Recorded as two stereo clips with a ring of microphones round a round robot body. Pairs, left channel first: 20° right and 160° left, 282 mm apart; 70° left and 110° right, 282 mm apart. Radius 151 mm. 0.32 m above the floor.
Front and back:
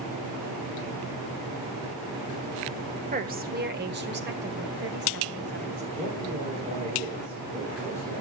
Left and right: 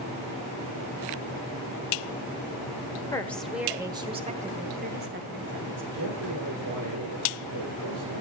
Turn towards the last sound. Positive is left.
turn(degrees=-135)